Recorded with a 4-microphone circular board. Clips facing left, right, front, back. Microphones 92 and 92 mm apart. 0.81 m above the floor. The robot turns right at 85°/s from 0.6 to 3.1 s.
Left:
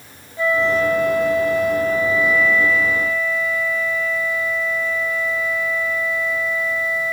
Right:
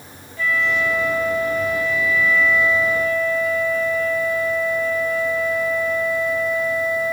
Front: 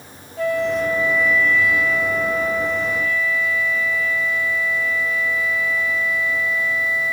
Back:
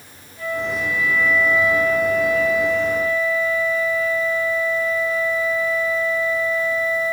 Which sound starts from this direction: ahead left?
A flute, at 0.4 s.